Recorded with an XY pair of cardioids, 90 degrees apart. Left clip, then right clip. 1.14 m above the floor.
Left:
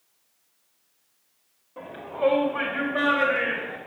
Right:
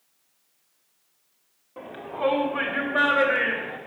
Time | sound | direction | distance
1.8 | a shout | 30° right | 2.5 m